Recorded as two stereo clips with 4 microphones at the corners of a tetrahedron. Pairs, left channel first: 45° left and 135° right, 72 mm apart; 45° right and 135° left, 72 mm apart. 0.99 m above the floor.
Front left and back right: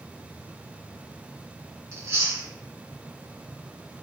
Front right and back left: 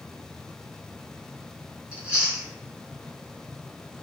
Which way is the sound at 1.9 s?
160° right.